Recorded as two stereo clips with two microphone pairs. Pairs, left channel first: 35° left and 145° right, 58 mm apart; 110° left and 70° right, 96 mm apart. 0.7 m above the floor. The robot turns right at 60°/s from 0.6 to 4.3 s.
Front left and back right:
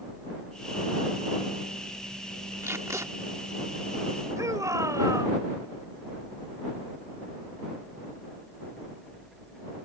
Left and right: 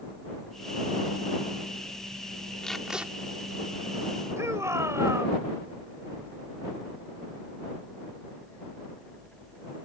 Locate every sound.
2.6 s tape being pulled: 175° right; by 3.1 s 145° right
4.4 s a shout: 130° right